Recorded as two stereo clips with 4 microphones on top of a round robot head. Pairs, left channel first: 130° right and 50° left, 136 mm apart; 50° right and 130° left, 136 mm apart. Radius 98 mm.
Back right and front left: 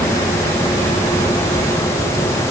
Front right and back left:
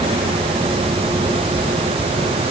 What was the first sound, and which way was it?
Only background noise.